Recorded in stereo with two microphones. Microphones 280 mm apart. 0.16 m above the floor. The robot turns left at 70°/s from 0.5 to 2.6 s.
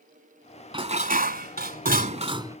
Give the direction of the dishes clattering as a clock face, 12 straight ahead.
1 o'clock.